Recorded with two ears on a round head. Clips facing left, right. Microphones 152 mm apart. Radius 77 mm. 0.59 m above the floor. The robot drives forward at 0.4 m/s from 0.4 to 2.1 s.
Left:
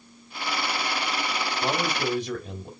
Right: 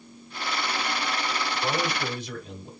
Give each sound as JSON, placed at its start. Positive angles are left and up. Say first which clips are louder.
{"t": 1.6, "sound": "a man speaking", "louder": "left 2 dB", "side_deg": 45, "distance_m": 1.8}